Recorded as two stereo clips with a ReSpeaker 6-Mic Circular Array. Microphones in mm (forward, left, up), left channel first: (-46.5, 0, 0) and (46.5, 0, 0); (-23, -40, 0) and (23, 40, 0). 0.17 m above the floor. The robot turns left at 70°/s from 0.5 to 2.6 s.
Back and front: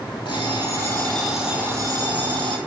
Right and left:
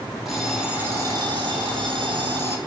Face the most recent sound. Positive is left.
turn(degrees=0)